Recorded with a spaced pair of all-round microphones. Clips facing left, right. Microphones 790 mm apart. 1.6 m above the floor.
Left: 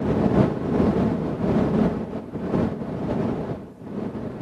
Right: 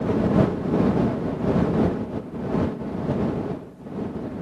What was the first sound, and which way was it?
Only background noise.